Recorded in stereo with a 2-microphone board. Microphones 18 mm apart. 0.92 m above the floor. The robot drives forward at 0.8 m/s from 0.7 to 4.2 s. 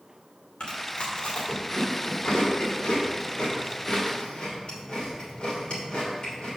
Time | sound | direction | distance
0.6 | chewing | 60° left (ahead or behind) | 2.5 m